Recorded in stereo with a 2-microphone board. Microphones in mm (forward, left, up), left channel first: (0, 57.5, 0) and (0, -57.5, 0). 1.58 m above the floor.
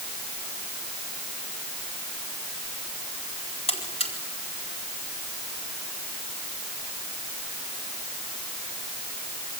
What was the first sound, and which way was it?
A buzzer, 60° left (ahead or behind).